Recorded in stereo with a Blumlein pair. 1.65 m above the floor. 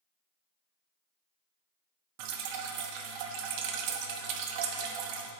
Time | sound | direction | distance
2.2 | dripping | 45° right | 1.2 m